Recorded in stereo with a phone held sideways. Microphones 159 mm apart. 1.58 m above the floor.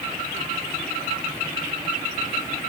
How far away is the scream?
I don't hear a scream.